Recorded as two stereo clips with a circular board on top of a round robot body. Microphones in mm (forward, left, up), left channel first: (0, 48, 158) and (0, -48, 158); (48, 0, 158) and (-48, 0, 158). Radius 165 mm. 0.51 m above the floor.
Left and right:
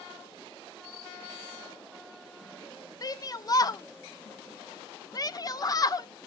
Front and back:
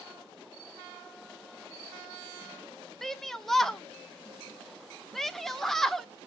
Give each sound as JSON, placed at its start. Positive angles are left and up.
{"t": 3.0, "sound": "a shout", "azimuth_deg": 85, "distance_m": 0.8}